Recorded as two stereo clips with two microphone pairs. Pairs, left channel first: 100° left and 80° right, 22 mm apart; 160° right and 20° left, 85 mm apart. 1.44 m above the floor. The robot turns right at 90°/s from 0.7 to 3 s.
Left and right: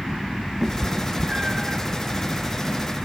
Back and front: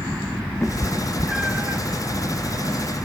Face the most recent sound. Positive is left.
turn(degrees=85)